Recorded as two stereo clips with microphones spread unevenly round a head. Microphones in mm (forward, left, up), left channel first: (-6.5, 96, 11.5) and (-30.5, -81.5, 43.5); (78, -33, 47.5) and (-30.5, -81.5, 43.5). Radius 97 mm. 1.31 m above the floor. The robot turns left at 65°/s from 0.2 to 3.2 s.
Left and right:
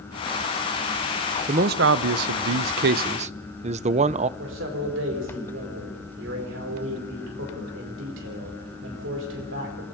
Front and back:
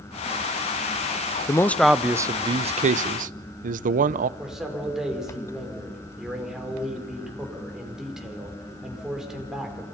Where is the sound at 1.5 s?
40° right, 0.6 m; by 4.3 s 155° right, 0.6 m.